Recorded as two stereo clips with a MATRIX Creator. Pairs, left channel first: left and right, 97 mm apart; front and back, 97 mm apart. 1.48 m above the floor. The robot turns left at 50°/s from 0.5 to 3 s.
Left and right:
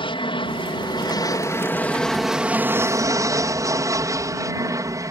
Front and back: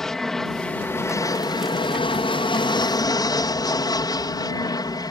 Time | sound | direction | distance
0.0 | an aircraft | 85° left | ?